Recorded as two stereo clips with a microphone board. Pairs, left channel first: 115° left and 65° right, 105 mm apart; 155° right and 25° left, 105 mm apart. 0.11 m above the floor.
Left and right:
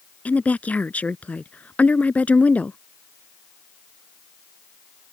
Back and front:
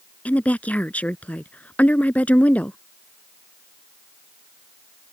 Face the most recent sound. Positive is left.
turn(degrees=160)